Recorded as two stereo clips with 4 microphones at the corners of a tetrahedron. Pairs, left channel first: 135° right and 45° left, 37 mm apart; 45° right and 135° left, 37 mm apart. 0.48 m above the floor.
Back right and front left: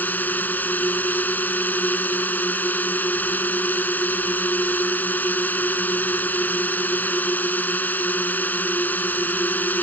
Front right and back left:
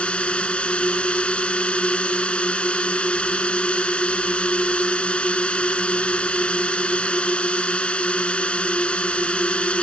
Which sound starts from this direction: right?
A drone, at 0.0 s.